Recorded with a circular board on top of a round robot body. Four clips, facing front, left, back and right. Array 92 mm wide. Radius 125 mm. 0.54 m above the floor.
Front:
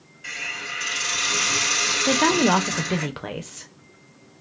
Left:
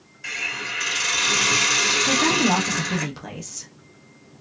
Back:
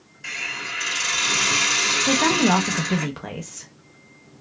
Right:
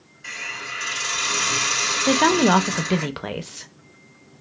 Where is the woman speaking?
80° right, 0.6 m.